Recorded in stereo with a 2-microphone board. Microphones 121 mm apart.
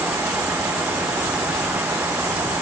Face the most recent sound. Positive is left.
No sound to turn to.